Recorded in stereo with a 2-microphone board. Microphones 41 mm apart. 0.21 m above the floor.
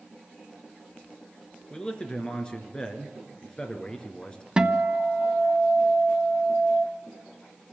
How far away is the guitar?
About 0.9 m.